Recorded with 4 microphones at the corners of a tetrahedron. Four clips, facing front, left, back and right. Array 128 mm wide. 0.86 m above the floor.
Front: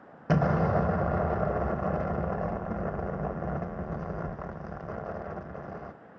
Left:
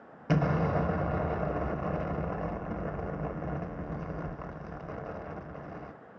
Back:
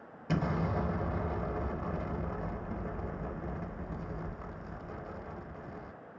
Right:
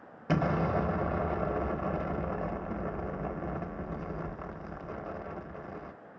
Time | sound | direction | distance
0.3 | an explosion | 5° left | 0.8 m